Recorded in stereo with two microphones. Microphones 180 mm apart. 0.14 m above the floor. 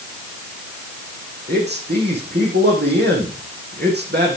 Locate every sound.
1.5 s a man speaking: 65° right (ahead or behind), 6.5 m